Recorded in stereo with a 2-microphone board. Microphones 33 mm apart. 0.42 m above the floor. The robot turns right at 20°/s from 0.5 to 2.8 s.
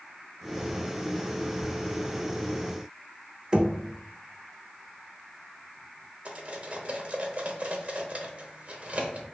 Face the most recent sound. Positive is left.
turn(degrees=-45)  # may be behind; listen again after turning